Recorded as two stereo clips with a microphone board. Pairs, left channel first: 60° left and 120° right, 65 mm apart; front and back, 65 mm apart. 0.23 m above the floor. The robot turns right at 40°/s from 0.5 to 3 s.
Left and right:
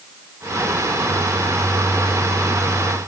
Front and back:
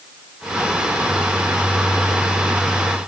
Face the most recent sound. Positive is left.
No sound to turn to.